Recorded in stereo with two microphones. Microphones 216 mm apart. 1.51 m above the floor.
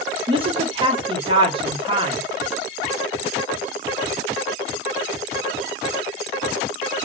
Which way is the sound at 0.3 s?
25° right (ahead or behind).